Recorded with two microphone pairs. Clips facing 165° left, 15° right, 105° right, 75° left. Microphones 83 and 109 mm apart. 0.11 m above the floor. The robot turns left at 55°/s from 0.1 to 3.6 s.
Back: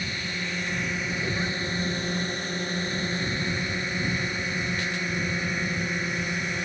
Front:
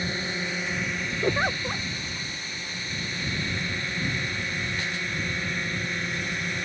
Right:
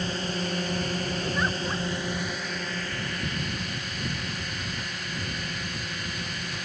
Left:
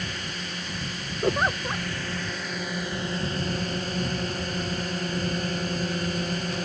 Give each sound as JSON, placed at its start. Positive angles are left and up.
{"t": 0.0, "sound": "a drone", "azimuth_deg": -60}
{"t": 1.2, "sound": "a giggle", "azimuth_deg": 35}